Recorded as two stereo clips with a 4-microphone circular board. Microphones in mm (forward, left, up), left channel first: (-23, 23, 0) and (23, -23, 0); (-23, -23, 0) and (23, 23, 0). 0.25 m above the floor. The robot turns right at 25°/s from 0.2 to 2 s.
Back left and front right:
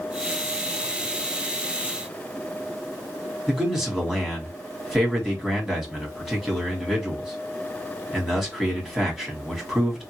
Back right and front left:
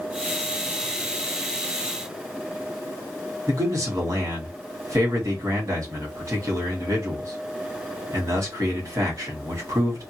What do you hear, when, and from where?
3.5 s a man speaking: 40° left, 1.7 m